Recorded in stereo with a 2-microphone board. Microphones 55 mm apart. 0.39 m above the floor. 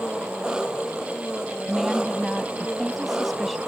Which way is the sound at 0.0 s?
15° right (ahead or behind).